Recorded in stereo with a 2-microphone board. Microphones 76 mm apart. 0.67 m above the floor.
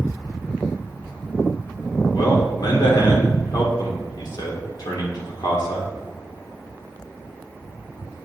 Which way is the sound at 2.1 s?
60° left (ahead or behind).